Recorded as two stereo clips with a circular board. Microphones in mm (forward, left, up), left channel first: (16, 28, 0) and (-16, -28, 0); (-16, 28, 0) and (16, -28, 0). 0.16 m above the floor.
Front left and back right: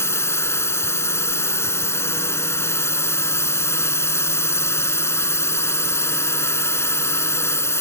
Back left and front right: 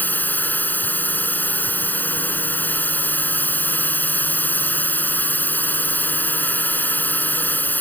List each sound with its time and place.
0.0 s a drone: 75° left